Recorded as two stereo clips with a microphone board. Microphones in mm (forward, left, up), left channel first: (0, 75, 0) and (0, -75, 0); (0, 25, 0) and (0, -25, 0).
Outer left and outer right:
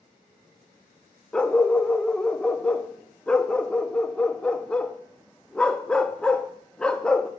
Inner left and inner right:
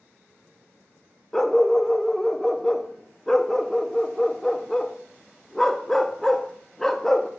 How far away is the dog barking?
About 0.5 m.